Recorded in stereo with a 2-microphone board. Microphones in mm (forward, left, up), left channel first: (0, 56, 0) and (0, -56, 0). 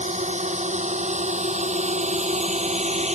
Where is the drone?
80° right; by 3.1 s 70° right (ahead or behind).